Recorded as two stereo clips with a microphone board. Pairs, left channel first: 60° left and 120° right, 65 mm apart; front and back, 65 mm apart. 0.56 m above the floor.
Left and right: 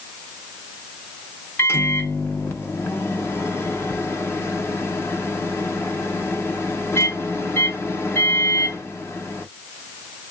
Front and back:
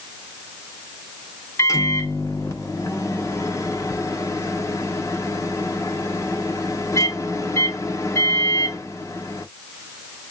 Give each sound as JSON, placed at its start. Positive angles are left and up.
{"t": 1.6, "sound": "a microwave", "azimuth_deg": 20, "distance_m": 0.8}